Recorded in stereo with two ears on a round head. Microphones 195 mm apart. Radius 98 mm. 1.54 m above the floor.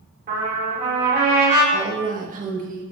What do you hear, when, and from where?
0.3 s a trumpet: 40° right (ahead or behind), 3 m
1.7 s a woman speaking: 40° right (ahead or behind), 1.6 m